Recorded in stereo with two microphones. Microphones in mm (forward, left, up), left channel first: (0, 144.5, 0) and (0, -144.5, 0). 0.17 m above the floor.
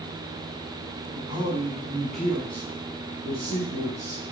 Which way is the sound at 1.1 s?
20° right (ahead or behind).